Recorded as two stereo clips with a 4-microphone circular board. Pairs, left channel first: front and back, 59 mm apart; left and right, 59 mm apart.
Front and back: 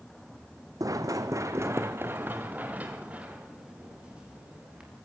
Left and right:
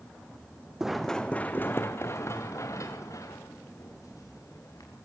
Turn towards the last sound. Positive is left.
turn(degrees=105)